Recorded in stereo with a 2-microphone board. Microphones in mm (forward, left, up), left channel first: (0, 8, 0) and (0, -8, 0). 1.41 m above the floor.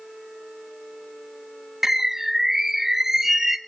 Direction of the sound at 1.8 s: 30° right (ahead or behind).